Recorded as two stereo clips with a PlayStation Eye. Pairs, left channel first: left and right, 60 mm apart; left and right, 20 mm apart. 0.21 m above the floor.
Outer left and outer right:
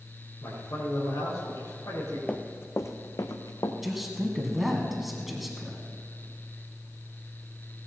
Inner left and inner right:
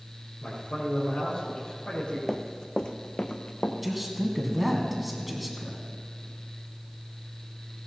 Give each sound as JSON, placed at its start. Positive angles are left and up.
{"t": 0.4, "sound": "a man speaking", "side_deg": 70, "distance_m": 4.0}
{"t": 2.3, "sound": "running footsteps", "side_deg": 20, "distance_m": 0.9}
{"t": 3.8, "sound": "a man speaking", "side_deg": 0, "distance_m": 1.9}